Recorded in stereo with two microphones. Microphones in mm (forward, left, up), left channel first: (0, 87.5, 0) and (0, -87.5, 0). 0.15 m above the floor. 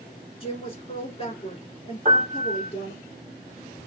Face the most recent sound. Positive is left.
turn(degrees=-45)  # may be behind; listen again after turning